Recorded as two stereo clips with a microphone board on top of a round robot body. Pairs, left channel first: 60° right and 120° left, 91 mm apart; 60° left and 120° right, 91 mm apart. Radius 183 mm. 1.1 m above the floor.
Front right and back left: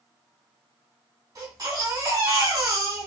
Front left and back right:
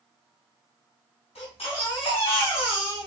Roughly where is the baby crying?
Left.